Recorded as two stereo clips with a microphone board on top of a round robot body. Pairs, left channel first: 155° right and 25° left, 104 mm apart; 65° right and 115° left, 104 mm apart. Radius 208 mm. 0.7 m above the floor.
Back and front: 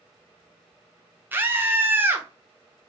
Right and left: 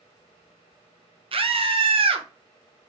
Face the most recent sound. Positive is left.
turn(degrees=90)